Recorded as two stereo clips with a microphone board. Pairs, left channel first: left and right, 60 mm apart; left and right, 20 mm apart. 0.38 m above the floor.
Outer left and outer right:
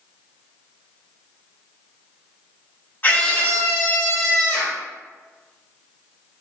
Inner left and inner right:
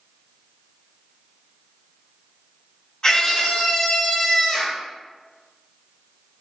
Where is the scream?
35° left (ahead or behind), 1.6 m; by 4.8 s 45° left (ahead or behind), 1.8 m.